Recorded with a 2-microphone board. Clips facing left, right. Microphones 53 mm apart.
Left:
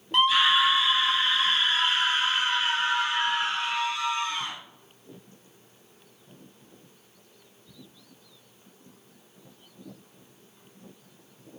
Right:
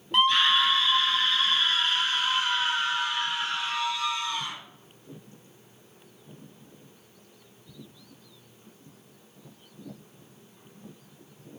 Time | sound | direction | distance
0.1 | a scream | centre (ahead or behind) | 0.8 m